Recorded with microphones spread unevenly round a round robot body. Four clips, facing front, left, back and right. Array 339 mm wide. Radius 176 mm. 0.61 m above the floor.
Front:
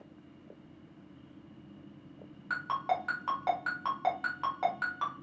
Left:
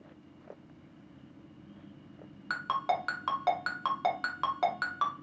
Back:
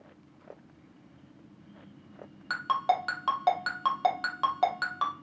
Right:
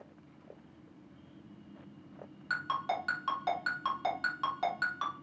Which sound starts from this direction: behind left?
A ringtone, at 2.5 s.